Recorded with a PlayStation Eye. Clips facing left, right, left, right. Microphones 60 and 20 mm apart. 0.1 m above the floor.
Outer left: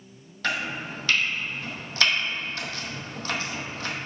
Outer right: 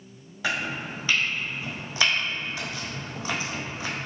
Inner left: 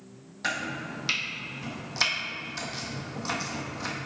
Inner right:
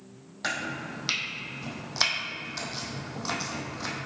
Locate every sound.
0.4 s chopping: 15° right (ahead or behind), 1.1 m